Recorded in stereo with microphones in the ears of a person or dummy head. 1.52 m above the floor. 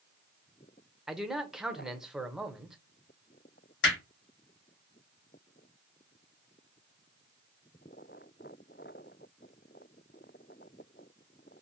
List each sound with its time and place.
1.1 s a man speaking: centre (ahead or behind), 0.6 m
3.8 s hammering: 90° left, 2.0 m